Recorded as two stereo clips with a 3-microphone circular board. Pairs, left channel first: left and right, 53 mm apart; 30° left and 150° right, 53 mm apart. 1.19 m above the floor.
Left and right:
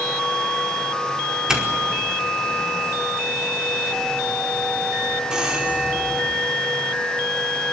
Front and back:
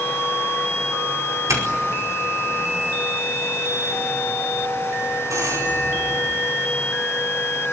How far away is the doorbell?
About 4.5 m.